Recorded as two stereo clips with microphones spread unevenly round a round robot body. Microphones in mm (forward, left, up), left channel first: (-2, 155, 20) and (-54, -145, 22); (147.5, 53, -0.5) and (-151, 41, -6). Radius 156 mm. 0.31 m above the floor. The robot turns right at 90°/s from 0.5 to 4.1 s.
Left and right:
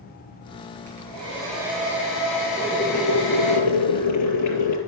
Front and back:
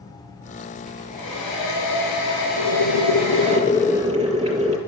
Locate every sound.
0.9 s a hair dryer: 90° right, 7 m; by 3.6 s 155° left, 7 m
2.6 s boiling: 25° right, 5.5 m; by 4.8 s 115° left, 5.5 m